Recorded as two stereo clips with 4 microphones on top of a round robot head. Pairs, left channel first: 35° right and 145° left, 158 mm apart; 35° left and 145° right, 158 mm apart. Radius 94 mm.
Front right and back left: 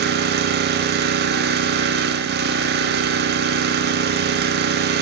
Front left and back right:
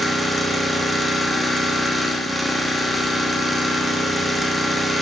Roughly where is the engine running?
Behind left.